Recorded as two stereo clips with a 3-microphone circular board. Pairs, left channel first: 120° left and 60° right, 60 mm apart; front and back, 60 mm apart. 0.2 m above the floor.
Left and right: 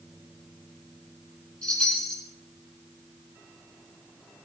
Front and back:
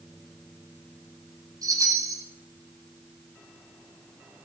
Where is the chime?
165° right, 7.5 m.